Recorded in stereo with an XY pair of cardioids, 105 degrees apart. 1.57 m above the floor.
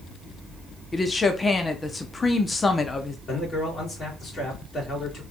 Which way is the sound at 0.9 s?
25° left.